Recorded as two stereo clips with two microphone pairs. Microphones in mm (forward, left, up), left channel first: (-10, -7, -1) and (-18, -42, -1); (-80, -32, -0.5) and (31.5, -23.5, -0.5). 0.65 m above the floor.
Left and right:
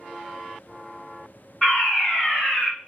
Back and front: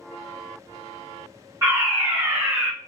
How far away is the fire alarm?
About 2.0 m.